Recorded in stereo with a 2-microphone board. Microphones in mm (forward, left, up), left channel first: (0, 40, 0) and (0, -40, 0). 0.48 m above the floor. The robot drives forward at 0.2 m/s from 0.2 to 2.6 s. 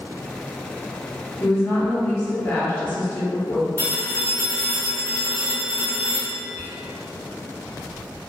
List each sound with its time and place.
1.4 s a woman speaking: 30° left (ahead or behind), 1.0 m
3.8 s a phone ringing: 30° left (ahead or behind), 1.7 m
6.5 s whispering: 20° left (ahead or behind), 1.1 m